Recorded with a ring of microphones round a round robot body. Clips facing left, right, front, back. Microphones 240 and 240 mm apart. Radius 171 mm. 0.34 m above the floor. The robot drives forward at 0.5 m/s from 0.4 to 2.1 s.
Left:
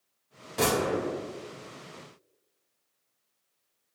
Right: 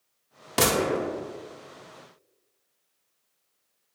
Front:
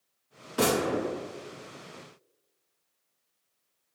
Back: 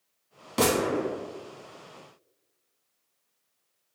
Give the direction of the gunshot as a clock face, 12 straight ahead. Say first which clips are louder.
Right 2 dB, back 2 dB; 4 o'clock.